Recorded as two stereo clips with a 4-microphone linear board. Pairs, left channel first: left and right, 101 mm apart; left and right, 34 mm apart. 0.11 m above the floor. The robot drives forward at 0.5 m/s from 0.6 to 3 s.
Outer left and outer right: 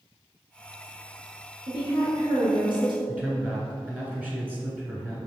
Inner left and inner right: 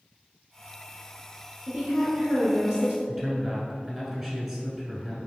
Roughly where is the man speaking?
Centre.